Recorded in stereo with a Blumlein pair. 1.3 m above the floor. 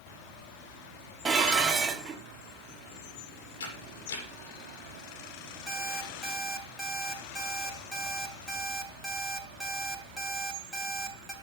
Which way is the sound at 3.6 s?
65° left.